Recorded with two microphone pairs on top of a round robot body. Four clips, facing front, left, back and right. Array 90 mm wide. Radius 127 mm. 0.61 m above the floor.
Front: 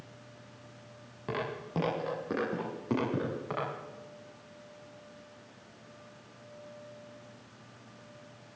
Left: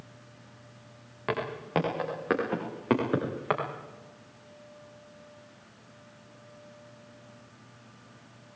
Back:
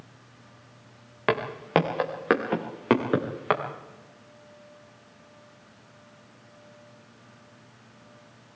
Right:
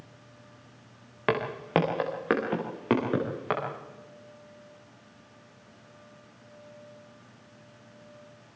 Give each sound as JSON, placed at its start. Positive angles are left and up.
{"t": 1.3, "sound": "footsteps", "azimuth_deg": -160, "distance_m": 4.0}